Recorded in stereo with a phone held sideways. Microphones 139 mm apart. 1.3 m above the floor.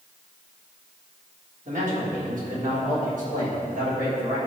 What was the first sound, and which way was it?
A man speaking, 65° right (ahead or behind).